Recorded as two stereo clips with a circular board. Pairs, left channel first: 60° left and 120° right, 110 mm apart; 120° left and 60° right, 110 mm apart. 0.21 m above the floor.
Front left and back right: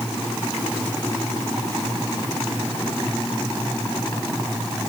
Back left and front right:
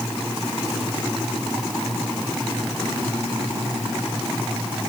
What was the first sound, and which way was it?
Only background noise.